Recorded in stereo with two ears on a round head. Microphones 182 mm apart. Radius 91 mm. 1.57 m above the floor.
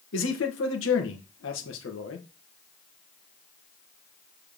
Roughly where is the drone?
No drone in this recording.